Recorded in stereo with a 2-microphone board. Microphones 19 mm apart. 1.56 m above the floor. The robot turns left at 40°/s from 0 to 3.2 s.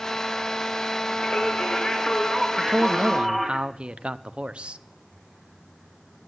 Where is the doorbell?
I don't hear a doorbell.